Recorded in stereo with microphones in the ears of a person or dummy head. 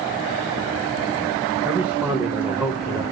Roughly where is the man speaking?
Centre.